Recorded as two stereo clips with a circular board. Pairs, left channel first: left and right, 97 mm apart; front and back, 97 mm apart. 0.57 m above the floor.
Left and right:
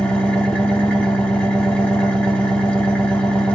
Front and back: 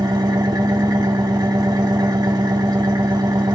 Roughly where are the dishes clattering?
No dishes clattering in this recording.